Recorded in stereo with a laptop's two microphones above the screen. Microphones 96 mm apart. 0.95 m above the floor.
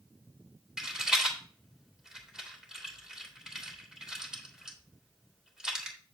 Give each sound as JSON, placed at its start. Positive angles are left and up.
{"t": 0.8, "sound": "a rattle", "side_deg": -5, "distance_m": 2.5}